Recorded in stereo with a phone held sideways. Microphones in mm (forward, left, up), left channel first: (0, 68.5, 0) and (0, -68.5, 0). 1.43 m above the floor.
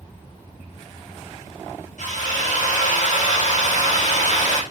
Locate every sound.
2.0 s a drill: 65° left (ahead or behind), 3.5 m